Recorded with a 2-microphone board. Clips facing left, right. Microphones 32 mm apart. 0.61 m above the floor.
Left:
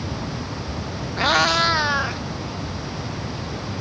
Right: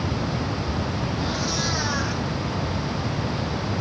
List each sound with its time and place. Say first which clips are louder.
1.2 s a cat meowing: left 13 dB; 60° left (ahead or behind), 0.5 m; by 2.2 s 30° left (ahead or behind), 1.5 m